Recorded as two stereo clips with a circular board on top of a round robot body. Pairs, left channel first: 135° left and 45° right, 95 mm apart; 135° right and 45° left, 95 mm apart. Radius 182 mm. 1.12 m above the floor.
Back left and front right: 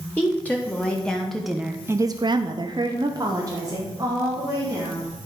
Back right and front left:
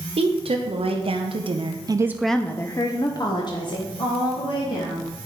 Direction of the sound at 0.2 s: 60° left.